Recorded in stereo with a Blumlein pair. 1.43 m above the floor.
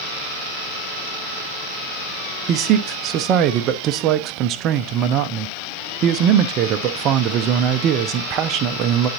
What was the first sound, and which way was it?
A man speaking, 35° right.